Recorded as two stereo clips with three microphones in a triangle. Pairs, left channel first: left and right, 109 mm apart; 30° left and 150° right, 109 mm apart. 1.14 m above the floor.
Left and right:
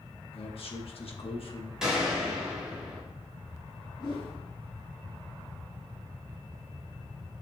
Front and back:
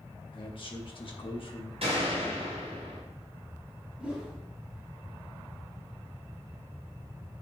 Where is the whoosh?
130° left, 3 m.